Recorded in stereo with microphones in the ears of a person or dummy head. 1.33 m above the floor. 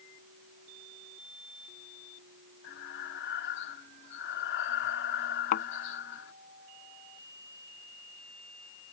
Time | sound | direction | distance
2.6 | breathing | 70° left (ahead or behind) | ?
5.5 | a thud | 45° left (ahead or behind) | ?